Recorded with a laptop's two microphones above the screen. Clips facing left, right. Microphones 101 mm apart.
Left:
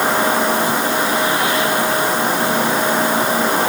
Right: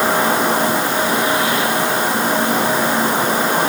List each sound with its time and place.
Only background noise.